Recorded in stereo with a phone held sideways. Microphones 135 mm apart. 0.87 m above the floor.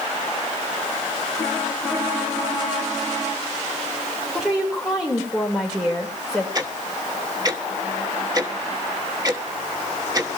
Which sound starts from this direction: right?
Ticking, at 6.5 s.